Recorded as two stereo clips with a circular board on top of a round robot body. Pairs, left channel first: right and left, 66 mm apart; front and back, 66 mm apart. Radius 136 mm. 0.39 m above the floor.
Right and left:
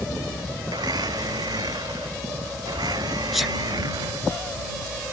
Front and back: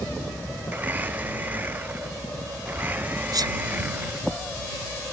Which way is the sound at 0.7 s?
115° left.